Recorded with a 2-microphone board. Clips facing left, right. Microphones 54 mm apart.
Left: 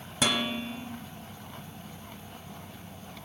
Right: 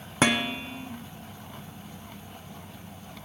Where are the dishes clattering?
40° right (ahead or behind), 1.0 m.